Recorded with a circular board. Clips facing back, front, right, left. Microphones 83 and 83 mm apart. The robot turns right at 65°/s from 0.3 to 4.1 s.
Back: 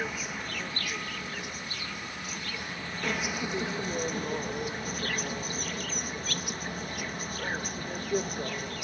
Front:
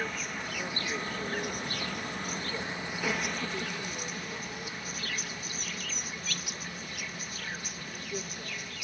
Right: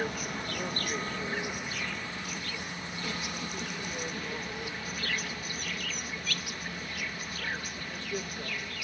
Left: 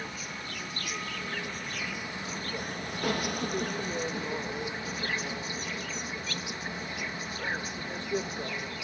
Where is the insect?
95° right; by 8.8 s 150° left.